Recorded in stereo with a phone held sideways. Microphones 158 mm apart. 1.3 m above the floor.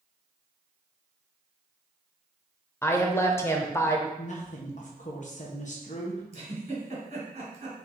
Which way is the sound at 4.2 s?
50° left (ahead or behind).